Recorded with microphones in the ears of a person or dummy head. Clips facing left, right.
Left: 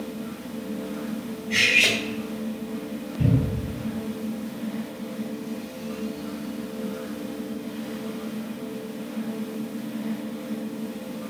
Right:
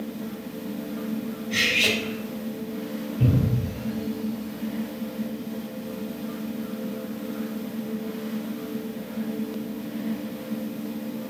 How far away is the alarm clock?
I don't hear an alarm clock.